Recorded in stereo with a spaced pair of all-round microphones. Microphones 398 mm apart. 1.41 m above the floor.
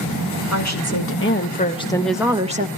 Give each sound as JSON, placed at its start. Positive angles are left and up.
{"t": 0.5, "sound": "a woman speaking", "side_deg": 45, "distance_m": 2.5}